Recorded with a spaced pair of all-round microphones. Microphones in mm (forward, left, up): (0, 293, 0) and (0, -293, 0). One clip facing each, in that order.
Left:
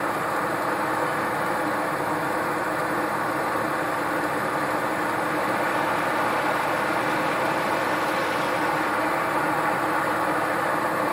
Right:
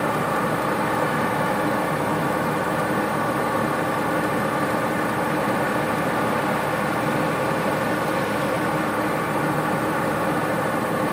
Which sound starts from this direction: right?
A fan, at 0.0 s.